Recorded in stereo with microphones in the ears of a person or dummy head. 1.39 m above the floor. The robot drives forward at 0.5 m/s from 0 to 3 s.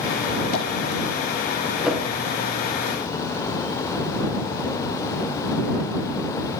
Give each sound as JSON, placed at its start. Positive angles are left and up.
{"t": 0.5, "sound": "tapping", "side_deg": 50, "distance_m": 3.5}
{"t": 1.8, "sound": "a whoosh", "side_deg": 0, "distance_m": 1.2}